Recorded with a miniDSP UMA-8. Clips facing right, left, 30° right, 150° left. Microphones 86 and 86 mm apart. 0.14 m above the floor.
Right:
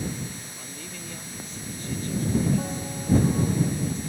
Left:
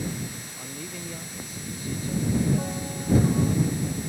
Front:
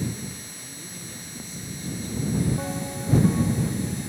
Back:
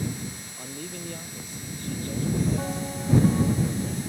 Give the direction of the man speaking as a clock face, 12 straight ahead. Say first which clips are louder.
Left 3 dB, back 5 dB; 6 o'clock.